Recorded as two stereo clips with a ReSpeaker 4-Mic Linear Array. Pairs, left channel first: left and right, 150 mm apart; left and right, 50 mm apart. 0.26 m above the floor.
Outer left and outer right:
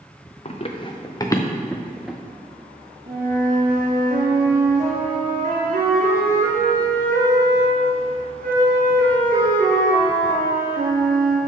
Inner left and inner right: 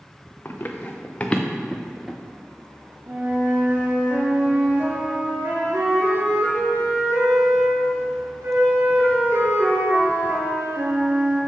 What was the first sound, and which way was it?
Running footsteps, 45° left (ahead or behind).